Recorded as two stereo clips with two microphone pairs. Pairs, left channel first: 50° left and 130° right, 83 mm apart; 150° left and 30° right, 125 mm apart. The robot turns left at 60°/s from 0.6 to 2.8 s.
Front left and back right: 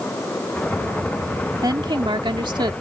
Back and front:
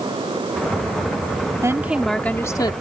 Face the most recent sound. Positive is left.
turn(degrees=-165)